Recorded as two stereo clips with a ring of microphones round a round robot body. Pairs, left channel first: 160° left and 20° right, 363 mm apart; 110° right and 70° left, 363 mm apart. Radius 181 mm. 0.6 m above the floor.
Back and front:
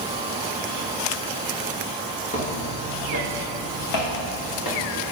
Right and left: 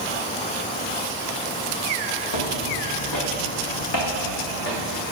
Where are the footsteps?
130° right, 2 m; by 4.8 s 175° right, 3 m.